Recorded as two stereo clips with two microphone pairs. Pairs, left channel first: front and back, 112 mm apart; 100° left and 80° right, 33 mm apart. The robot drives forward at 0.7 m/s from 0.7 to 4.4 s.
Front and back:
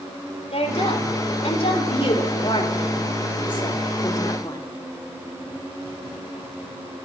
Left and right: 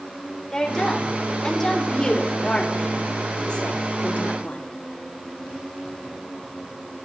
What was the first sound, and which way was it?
A woman speaking, 25° left.